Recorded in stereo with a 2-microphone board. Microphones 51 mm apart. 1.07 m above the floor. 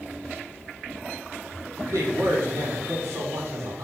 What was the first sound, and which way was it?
A man speaking, 75° right (ahead or behind).